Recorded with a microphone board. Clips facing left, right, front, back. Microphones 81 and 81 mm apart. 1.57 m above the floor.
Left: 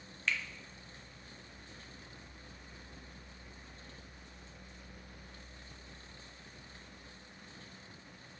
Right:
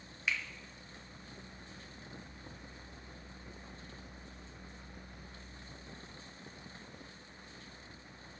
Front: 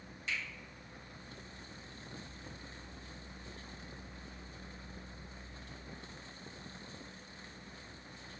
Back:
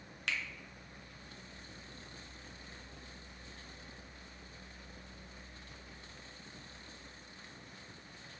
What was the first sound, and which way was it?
A finger snap, 170° right.